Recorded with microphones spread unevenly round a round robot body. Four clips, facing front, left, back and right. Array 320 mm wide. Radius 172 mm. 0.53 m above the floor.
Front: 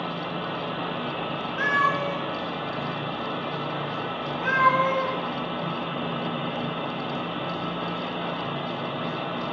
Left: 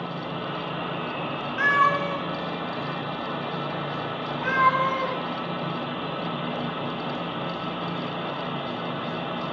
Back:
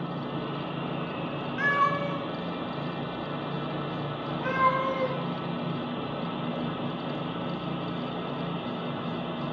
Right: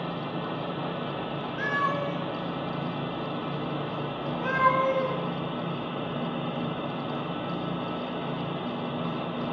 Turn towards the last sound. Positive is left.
turn(degrees=-135)